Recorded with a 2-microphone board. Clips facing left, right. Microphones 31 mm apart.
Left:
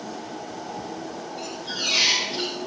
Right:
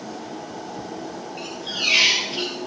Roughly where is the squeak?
Right.